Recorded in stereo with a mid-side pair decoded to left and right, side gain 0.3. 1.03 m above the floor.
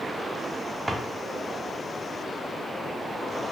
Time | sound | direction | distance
0.9 | a drawer | 20° right | 0.9 m